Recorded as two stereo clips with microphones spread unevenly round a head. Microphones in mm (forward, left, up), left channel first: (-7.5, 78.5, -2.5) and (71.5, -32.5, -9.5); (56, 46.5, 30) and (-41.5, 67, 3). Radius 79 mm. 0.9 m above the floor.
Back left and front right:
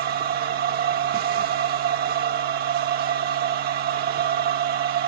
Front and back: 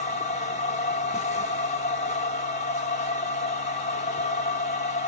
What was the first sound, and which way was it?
A machine running, 45° right.